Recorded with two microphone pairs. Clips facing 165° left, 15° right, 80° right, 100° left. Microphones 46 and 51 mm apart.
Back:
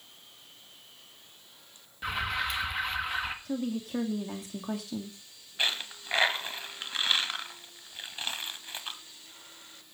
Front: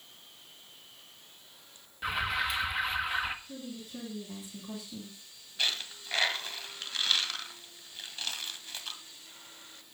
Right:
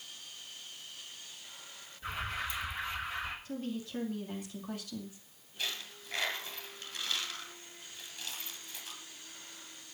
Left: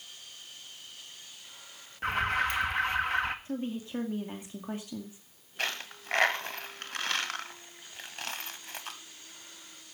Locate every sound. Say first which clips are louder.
2.0 s an alarm: even, left 9 dB; 75° left, 1.8 m
3.5 s a woman speaking: back 10 dB, left 4 dB; 165° left, 2.5 m
5.6 s a dropped coin: back 2 dB, left 5 dB; 105° left, 1.5 m